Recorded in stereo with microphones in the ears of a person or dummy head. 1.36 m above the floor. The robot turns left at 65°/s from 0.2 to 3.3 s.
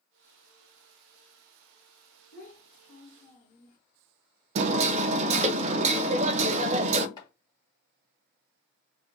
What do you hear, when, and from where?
2.3 s a child speaking: 105° left, 1.4 m; by 3.8 s 40° left, 1.4 m
4.5 s hammering: 40° right (ahead or behind), 0.6 m
7.2 s chopping: 20° left (ahead or behind), 1.5 m